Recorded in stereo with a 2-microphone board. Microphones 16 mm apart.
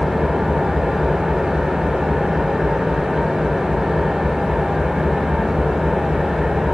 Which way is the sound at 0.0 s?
75° right (ahead or behind).